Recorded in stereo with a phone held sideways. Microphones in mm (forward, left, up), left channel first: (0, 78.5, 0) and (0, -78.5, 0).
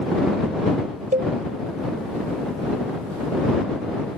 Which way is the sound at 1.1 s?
55° right (ahead or behind).